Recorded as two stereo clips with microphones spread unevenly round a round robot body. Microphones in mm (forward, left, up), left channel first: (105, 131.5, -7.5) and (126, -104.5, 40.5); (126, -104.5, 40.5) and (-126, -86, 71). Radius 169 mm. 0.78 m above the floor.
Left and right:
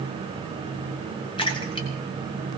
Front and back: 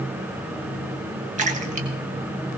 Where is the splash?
125° left, 1.1 m.